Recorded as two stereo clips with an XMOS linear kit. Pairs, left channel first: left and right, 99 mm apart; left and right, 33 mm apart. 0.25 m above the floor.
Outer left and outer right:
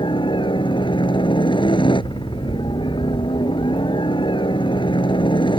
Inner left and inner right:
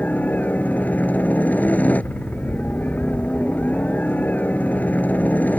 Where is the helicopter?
60° left (ahead or behind).